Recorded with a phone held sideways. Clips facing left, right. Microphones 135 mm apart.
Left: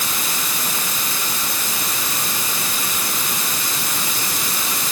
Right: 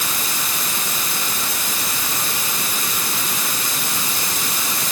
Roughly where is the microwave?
I don't hear a microwave.